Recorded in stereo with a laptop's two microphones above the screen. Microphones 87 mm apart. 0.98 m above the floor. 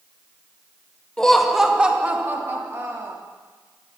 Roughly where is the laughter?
Centre.